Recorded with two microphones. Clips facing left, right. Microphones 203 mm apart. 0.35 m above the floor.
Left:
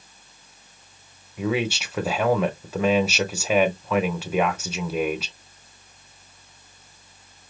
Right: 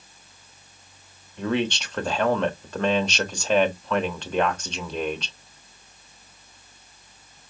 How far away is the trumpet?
No trumpet in this recording.